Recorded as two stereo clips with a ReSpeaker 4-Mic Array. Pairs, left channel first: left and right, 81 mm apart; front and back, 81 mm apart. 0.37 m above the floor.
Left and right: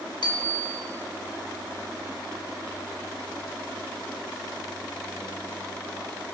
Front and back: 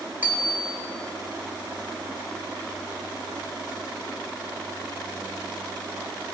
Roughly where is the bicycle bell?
Left.